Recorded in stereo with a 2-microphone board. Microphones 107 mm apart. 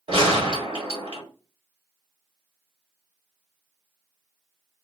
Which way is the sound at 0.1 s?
55° right (ahead or behind).